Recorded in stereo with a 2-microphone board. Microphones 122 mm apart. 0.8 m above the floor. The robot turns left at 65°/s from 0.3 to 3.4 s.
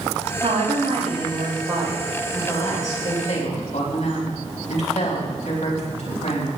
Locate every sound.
0.4 s a woman speaking: 55° right, 4.5 m; by 6.5 s 110° left, 4.5 m